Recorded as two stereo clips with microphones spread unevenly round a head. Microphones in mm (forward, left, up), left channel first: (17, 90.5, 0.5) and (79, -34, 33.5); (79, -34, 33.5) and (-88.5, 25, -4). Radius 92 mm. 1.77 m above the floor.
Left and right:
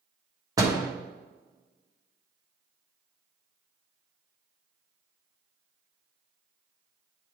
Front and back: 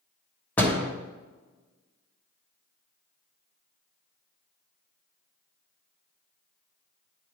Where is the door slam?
75° right, 1.1 m.